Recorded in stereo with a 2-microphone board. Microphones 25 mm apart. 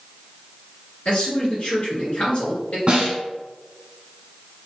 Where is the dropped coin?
No dropped coin in this recording.